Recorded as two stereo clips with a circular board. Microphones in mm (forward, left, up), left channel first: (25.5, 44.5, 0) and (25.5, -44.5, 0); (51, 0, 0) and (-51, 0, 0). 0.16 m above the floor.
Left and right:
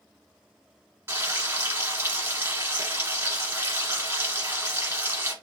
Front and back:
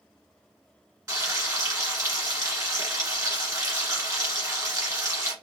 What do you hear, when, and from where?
1.1 s frying: 135° right, 1.5 m